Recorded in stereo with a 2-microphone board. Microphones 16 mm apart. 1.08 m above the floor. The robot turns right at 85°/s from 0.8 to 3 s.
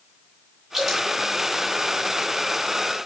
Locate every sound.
0.7 s dripping: 25° right (ahead or behind), 4.5 m; by 1.1 s 50° right (ahead or behind), 4.5 m